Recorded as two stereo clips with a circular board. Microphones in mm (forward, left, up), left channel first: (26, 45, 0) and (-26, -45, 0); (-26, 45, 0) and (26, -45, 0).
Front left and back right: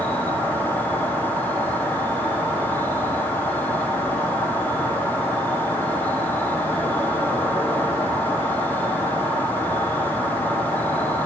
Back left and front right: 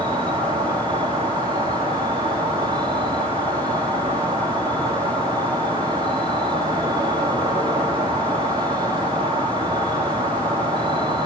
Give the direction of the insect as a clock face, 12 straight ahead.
12 o'clock.